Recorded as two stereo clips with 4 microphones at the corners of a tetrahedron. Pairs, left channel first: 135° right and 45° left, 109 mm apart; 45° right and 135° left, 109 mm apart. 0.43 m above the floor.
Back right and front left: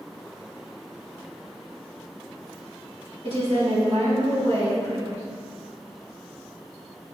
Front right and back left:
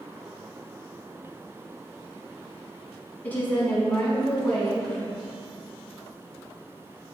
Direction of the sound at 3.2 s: 30° left.